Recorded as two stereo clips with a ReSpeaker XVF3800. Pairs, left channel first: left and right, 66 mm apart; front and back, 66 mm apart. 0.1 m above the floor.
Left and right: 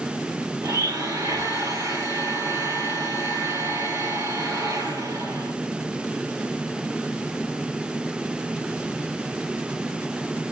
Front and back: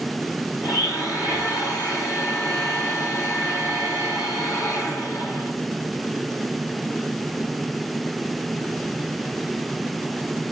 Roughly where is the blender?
Ahead right.